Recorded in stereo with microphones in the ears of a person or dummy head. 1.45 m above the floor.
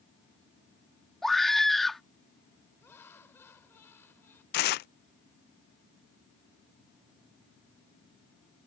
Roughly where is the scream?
Centre.